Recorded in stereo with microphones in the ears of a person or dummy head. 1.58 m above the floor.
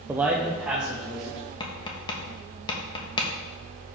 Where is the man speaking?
15° right (ahead or behind), 0.7 m; by 1.4 s 10° right (ahead or behind), 2.5 m.